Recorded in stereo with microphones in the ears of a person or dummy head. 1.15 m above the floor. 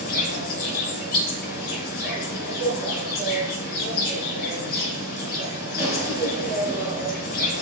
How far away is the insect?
About 4.5 m.